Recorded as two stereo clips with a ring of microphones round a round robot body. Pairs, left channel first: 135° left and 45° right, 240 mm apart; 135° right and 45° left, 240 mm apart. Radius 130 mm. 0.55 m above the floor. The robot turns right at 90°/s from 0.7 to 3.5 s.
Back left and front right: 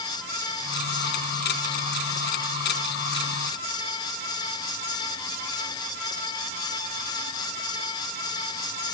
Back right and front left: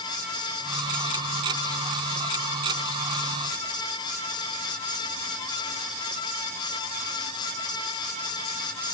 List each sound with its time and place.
Only background noise.